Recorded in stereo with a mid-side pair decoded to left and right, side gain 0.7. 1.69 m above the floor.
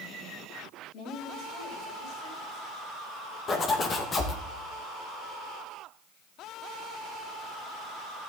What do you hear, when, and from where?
0.9 s a woman speaking: 60° left, 6.5 m; by 2.6 s 65° left, 7 m
3.5 s a zipper: 30° left, 1.9 m